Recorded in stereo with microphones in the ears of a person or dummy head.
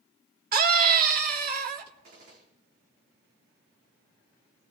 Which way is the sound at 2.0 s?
50° right (ahead or behind).